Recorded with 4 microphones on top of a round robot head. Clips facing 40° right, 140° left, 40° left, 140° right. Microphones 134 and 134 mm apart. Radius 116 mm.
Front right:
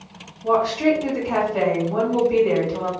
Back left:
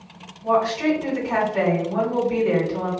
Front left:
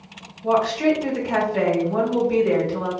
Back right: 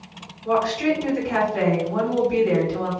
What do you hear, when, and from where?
0.4 s a woman speaking: 50° left, 1.6 m